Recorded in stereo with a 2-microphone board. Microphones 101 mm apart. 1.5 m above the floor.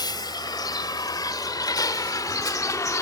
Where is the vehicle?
50° left (ahead or behind); by 3.0 s 35° left (ahead or behind).